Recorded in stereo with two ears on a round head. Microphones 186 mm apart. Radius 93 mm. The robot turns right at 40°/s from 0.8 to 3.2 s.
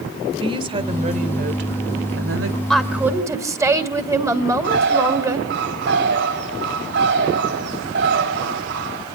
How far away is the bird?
About 3 m.